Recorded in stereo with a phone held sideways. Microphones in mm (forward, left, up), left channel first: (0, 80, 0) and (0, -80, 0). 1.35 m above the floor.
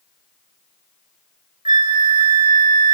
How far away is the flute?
About 0.9 m.